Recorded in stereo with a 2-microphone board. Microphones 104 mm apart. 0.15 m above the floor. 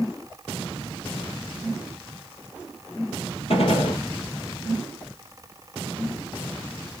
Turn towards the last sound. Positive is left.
turn(degrees=75)  # may be behind; listen again after turning